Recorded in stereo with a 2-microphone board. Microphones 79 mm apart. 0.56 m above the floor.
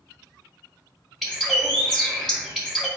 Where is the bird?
5° left (ahead or behind), 1.2 m.